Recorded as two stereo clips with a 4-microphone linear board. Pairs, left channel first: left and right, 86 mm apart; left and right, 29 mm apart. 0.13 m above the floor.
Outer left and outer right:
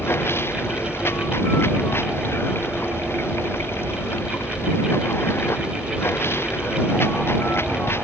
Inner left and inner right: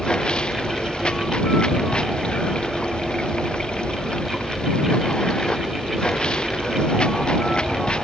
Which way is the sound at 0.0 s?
30° left (ahead or behind).